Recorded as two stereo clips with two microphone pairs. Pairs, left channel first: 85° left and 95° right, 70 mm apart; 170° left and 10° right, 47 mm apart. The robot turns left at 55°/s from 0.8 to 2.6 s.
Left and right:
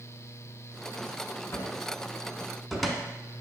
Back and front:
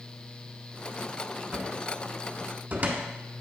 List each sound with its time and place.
1.5 s a cupboard door: 55° left, 0.8 m; by 3.0 s straight ahead, 0.8 m